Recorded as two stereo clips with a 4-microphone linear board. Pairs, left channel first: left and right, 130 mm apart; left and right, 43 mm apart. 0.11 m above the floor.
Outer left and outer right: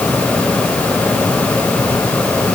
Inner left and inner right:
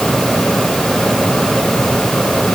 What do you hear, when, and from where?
Only background noise.